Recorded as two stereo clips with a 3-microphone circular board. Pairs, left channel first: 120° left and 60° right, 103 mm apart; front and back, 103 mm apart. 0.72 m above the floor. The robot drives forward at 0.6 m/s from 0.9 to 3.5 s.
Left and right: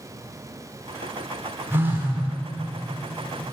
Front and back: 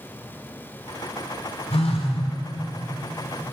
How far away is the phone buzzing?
About 2 m.